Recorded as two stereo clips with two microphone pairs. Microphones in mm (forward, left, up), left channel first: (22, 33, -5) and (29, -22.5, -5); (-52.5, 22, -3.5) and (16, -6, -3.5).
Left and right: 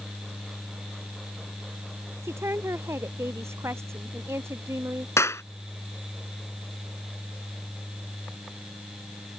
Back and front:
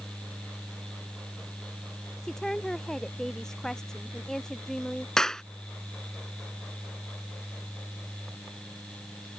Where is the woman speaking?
120° right.